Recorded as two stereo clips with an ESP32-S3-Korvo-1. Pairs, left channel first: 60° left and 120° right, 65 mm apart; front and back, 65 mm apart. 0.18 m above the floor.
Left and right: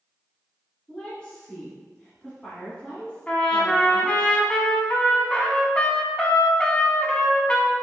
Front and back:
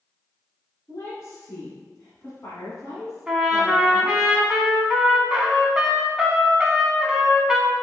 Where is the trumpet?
115° left, 0.6 m.